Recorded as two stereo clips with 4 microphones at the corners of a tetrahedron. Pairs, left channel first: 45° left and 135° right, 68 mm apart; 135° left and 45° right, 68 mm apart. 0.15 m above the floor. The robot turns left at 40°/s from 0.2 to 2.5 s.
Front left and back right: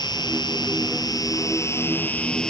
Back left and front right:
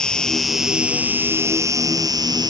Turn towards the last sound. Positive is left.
turn(degrees=-35)